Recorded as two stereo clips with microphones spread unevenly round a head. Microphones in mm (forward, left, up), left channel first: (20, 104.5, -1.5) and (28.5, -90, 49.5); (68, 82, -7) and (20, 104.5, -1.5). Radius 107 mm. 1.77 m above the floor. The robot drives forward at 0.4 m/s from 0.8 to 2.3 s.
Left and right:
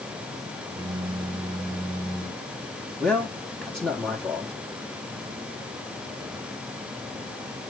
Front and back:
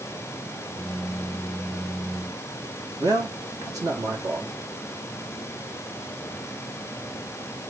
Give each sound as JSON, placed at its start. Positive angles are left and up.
{"t": 3.0, "sound": "a man speaking", "azimuth_deg": 180, "distance_m": 1.9}